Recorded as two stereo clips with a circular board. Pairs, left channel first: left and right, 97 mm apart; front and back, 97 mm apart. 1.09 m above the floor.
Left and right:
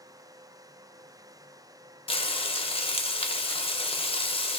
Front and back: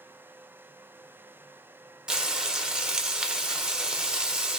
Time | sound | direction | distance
2.1 | frying | 100° left | 0.5 m